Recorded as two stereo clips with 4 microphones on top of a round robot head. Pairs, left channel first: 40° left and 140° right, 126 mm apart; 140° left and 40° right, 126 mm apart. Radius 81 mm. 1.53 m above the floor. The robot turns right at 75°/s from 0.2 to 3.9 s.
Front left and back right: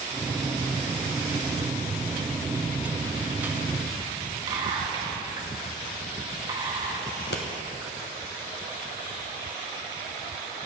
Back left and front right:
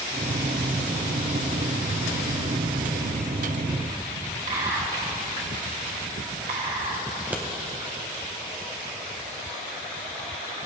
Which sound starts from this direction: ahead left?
Scissors, at 7.2 s.